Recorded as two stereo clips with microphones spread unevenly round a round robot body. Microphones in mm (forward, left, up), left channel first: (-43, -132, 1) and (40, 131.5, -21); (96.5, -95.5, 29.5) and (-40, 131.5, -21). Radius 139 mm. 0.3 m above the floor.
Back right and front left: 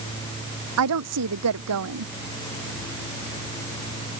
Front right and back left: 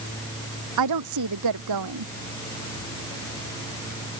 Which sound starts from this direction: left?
A woman speaking, at 0.8 s.